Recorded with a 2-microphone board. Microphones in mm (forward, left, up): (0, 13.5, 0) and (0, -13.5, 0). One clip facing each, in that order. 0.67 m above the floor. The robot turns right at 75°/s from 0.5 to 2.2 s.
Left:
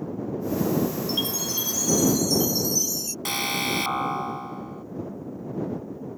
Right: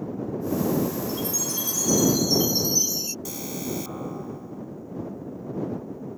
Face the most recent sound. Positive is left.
turn(degrees=55)  # may be behind; listen again after turning